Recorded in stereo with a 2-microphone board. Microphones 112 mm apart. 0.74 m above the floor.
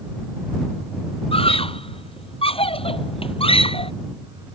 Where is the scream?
60° left (ahead or behind).